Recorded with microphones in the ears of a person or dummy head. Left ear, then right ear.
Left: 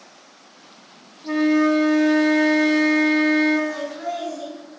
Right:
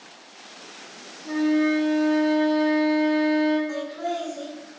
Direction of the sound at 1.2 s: 25° left (ahead or behind).